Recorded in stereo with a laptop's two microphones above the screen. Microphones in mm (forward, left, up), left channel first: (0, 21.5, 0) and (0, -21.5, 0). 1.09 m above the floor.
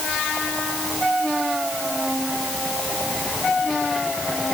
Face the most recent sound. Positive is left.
No sound to turn to.